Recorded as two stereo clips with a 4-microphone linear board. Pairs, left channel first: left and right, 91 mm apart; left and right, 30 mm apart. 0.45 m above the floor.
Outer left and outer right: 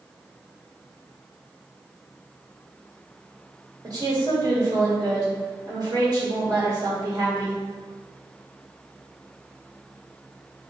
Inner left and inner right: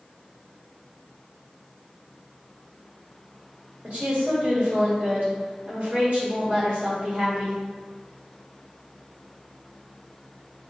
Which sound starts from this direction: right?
A woman speaking, at 3.8 s.